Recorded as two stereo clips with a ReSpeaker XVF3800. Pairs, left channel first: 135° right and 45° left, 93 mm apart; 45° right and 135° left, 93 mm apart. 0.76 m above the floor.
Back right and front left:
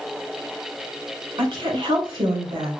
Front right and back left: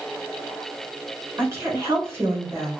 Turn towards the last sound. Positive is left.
turn(degrees=75)